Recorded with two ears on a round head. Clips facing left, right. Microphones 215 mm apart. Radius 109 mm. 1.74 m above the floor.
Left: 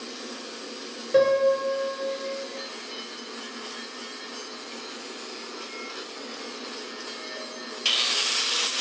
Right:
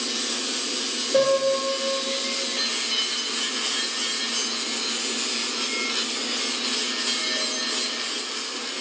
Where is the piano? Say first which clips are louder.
Left 1 dB; 40° left (ahead or behind), 1.9 m.